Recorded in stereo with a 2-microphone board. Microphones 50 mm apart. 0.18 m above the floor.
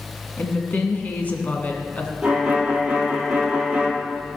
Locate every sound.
0.4 s a woman speaking: 35° left (ahead or behind), 1.7 m
2.2 s a violin: 20° right (ahead or behind), 2.5 m